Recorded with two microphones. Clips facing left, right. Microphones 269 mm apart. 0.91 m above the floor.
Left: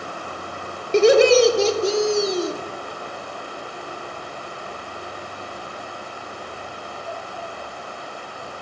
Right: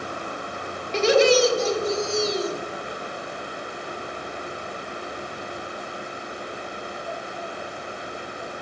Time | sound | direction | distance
0.9 | laughter | 55° left (ahead or behind) | 2 m